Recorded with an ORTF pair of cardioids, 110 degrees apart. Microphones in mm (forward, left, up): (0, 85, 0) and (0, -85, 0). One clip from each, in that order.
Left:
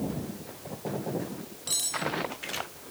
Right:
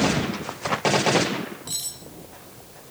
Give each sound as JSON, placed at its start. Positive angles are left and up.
{"t": 1.7, "sound": "cutlery clinking", "azimuth_deg": 15, "distance_m": 5.5}